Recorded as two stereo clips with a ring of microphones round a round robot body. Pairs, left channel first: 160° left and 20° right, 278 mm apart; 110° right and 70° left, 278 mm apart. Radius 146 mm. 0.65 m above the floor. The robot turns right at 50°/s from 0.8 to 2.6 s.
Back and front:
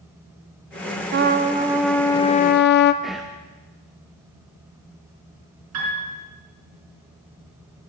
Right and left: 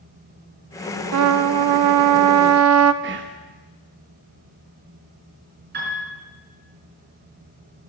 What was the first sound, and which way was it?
A trumpet, 30° left.